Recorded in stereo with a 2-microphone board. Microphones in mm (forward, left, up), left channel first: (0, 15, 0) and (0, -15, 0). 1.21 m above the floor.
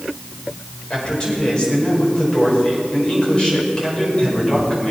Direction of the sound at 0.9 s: 30° left (ahead or behind).